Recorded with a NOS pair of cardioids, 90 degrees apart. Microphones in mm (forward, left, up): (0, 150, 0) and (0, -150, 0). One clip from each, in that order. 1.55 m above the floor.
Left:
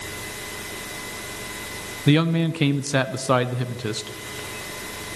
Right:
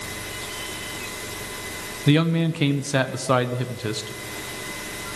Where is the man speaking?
10° left, 0.9 m.